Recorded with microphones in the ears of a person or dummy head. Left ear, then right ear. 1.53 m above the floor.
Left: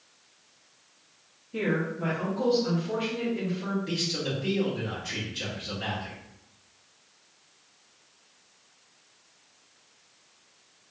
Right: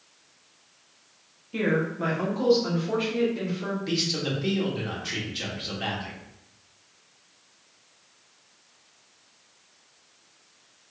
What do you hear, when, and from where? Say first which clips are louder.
1.5 s a woman speaking: right 3 dB; 35° right (ahead or behind), 0.8 m; by 3.8 s 40° right (ahead or behind), 1.9 m
3.9 s a man speaking: right 4 dB; 25° right (ahead or behind), 1.3 m